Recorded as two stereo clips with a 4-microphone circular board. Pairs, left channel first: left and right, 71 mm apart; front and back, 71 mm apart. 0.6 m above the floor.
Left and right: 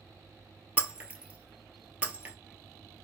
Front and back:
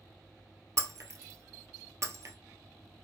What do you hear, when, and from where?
0.8 s breaking glass: 155° right, 0.9 m